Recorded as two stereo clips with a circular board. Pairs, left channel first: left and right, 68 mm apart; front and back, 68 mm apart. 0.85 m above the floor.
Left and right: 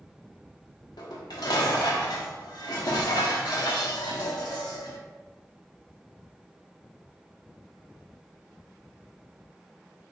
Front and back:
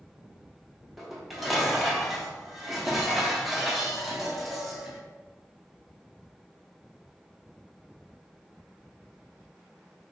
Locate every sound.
1.0 s dishes clattering: 90° left, 0.7 m